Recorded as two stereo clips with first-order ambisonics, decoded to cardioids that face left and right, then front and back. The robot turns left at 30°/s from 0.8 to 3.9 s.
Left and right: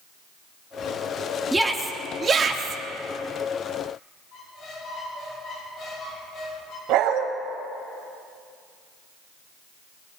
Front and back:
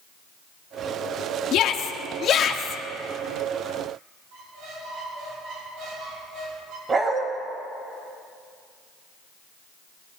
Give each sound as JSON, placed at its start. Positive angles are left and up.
{"t": 1.5, "sound": "a shout", "azimuth_deg": -10, "distance_m": 1.2}
{"t": 4.3, "sound": "a squeak", "azimuth_deg": 140, "distance_m": 5.0}
{"t": 6.9, "sound": "a dog barking", "azimuth_deg": -110, "distance_m": 1.8}